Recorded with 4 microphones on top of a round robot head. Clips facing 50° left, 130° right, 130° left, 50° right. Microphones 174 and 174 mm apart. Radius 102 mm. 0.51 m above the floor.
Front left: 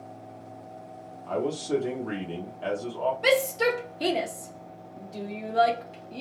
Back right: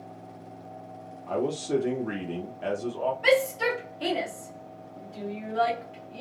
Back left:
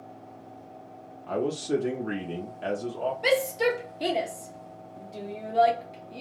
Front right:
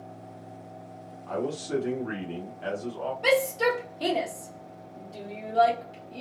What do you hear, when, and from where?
1.3 s a man speaking: 155° left, 0.9 m
3.2 s a shout: 55° left, 0.9 m